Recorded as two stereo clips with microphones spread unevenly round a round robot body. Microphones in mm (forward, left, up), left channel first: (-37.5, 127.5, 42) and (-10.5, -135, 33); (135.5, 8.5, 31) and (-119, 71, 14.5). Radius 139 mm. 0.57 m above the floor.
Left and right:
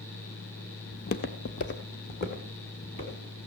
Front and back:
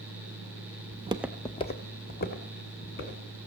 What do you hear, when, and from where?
0.9 s footsteps: 140° left, 0.6 m; by 3.2 s 35° left, 3 m